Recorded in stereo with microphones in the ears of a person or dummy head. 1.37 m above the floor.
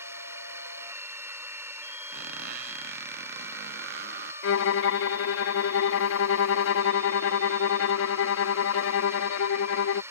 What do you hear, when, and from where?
0.0 s a drone: 15° right (ahead or behind)
2.1 s a squeak: 60° right (ahead or behind)
4.4 s a violin: 75° left (ahead or behind)